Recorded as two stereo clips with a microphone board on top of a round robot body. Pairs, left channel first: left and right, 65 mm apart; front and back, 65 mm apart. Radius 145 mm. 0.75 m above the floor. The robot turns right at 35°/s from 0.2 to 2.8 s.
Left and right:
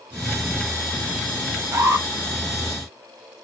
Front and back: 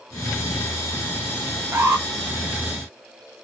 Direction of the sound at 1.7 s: 135° right.